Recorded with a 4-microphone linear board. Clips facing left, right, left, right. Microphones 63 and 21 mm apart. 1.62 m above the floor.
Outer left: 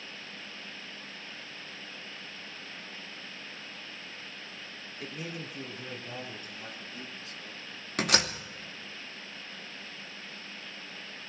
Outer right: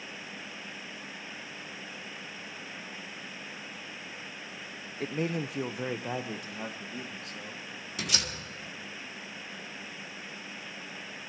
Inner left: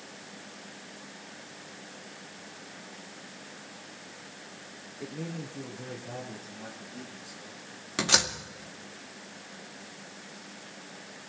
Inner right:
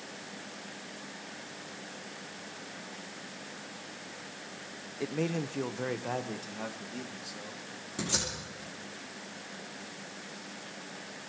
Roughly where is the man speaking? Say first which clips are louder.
Outer right 9 dB, inner right 6 dB; right.